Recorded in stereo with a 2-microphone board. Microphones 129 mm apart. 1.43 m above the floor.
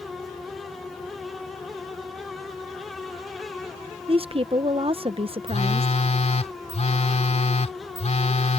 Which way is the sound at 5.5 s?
60° left (ahead or behind).